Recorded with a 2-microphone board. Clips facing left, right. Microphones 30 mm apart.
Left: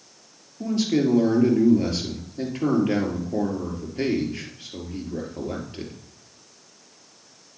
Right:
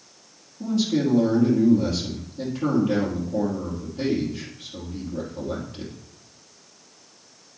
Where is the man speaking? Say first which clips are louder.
Left 1 dB; 55° left (ahead or behind), 2.5 m.